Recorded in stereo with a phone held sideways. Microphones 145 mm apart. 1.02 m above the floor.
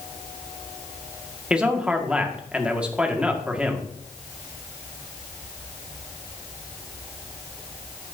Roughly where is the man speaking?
Centre.